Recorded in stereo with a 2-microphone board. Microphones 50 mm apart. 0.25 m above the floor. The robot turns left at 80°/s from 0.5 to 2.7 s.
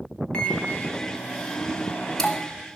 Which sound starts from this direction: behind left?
A microwave, at 0.3 s.